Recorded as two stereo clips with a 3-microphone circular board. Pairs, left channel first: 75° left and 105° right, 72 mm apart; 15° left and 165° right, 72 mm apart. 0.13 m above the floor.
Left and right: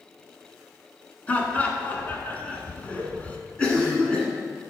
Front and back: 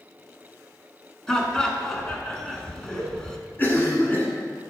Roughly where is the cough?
Ahead.